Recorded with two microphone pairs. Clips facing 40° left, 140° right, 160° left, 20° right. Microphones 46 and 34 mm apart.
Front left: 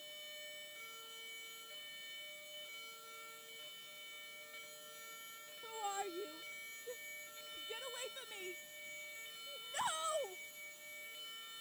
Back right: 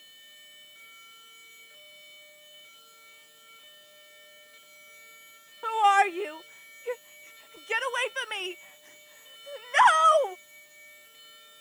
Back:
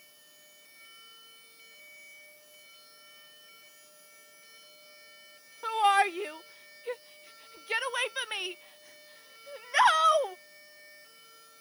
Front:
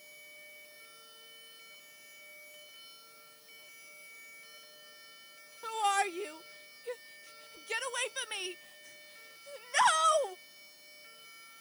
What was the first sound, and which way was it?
A shout, 135° right.